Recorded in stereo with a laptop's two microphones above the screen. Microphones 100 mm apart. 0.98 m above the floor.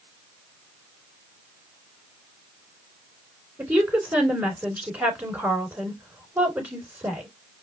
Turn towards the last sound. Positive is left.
turn(degrees=-15)  # may be behind; listen again after turning